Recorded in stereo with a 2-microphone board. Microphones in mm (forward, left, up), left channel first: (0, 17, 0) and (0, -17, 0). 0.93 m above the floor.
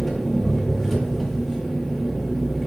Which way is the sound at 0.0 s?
5° left (ahead or behind).